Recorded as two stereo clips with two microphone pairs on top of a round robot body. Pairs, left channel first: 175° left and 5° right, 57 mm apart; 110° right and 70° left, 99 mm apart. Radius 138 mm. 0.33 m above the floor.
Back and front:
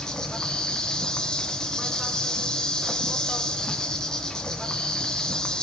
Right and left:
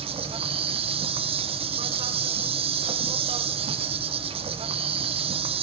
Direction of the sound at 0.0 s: 95° left.